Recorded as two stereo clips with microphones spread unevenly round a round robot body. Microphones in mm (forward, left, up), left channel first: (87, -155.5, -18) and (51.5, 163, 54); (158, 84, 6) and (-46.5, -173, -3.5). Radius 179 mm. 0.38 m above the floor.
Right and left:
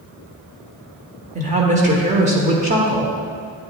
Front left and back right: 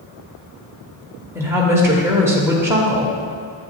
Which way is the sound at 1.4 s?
165° left.